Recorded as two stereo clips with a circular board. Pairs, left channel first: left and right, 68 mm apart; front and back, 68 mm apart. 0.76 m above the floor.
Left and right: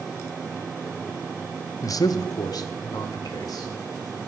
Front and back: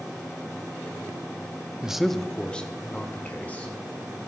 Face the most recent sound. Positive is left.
turn(degrees=65)